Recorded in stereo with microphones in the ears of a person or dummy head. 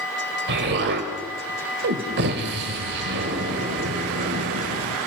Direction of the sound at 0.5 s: 55° right (ahead or behind).